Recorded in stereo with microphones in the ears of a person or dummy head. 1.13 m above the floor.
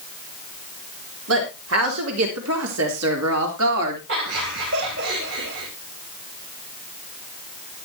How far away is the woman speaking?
About 3.5 m.